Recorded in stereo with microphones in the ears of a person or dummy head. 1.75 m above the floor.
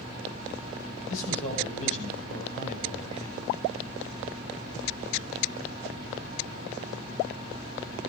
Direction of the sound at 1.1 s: 40° left (ahead or behind).